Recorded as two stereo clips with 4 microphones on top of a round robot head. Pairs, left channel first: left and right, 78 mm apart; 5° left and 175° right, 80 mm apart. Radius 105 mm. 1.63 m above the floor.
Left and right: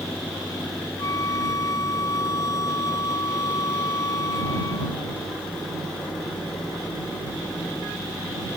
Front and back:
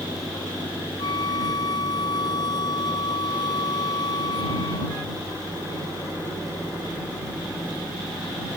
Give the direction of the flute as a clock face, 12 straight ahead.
11 o'clock.